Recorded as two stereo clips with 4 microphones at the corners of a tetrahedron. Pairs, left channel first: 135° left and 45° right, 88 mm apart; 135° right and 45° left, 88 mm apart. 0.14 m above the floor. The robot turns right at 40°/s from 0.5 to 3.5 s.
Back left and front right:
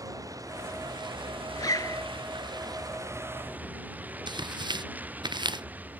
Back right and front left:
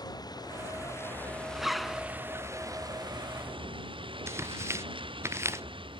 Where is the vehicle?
95° right; by 6.0 s 25° left.